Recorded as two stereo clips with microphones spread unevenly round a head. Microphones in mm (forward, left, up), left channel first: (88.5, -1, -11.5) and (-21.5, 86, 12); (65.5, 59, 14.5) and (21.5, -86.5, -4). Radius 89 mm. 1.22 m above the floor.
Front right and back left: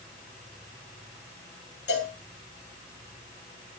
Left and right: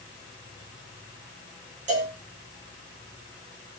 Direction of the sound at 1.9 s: 65° right.